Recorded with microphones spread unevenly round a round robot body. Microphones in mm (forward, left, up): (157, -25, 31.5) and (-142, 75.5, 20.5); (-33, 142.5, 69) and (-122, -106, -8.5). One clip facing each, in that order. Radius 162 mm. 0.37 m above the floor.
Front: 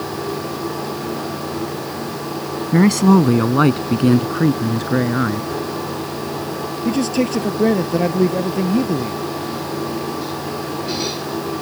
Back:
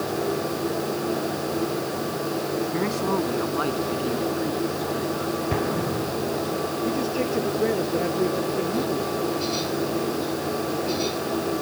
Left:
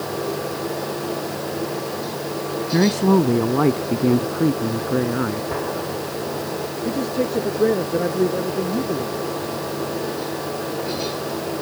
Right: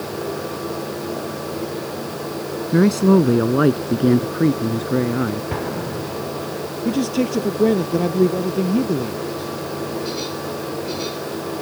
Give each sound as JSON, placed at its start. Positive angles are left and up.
{"t": 2.7, "sound": "a man speaking", "azimuth_deg": -35}
{"t": 5.5, "sound": "an explosion", "azimuth_deg": -150}
{"t": 6.8, "sound": "a man speaking", "azimuth_deg": -50}